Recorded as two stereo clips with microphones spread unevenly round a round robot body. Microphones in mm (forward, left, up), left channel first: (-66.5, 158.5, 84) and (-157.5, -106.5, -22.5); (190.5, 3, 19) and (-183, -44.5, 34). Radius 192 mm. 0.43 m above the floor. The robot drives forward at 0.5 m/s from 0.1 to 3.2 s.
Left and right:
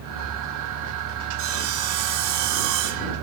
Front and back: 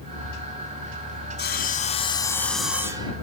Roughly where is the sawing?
Ahead right.